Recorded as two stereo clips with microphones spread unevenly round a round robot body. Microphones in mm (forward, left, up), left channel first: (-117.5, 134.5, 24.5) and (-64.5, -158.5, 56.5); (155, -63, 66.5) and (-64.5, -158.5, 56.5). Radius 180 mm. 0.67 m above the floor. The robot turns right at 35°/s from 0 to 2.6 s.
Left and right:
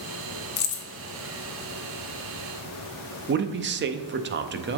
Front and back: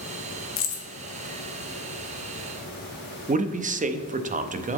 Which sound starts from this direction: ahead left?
Keys jangling, at 0.6 s.